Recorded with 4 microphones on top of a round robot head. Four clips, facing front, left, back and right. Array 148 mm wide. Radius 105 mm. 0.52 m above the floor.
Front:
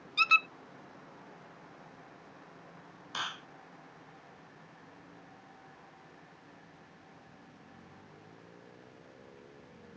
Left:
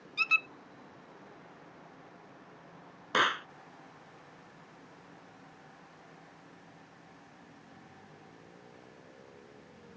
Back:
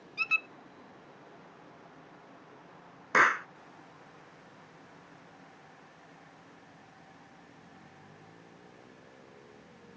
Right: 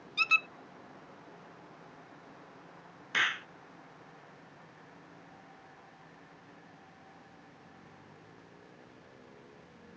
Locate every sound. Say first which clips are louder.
0.2 s a squeak: right 2 dB, front 9 dB; 5° right
3.1 s a clap: left 5 dB, back 16 dB; 150° left